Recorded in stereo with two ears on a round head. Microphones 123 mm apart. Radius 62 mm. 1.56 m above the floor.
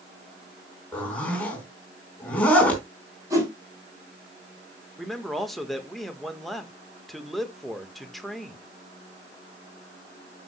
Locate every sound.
0.9 s a zipper: 10° left (ahead or behind), 3 m
3.3 s a whoosh: 20° right (ahead or behind), 5.5 m
5.0 s a man speaking: centre (ahead or behind), 1.4 m